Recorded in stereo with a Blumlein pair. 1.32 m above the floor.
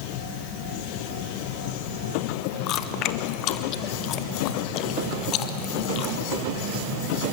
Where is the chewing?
35° left, 1.1 m.